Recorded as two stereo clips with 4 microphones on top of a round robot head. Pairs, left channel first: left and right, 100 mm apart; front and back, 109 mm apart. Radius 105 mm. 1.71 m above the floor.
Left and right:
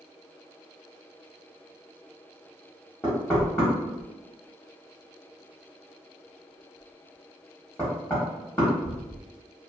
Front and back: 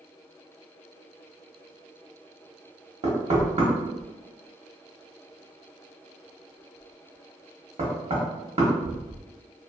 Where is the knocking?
170° left, 0.8 m.